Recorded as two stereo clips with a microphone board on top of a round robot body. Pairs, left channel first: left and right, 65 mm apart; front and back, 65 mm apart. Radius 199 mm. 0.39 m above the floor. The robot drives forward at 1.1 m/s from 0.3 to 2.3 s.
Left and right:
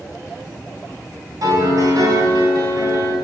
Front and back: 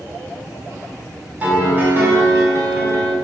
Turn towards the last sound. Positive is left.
turn(degrees=-130)